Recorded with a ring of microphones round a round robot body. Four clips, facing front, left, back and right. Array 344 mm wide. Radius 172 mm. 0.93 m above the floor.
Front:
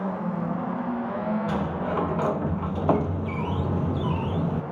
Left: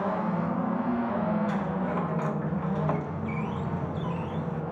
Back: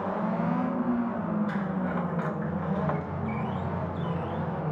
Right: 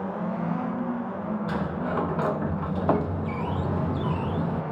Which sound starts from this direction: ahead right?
A sliding door, at 1.5 s.